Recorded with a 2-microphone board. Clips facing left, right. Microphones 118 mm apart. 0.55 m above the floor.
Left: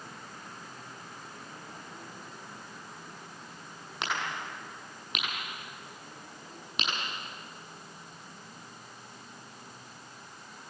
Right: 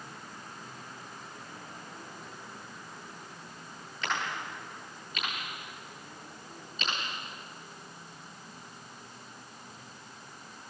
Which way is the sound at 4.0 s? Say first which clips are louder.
Even; 90° left.